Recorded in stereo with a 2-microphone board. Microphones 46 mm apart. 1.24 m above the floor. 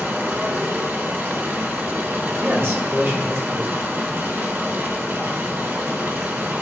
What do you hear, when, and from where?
0.0 s running water: 50° right (ahead or behind), 1.8 m
2.4 s a man speaking: 65° right (ahead or behind), 2.5 m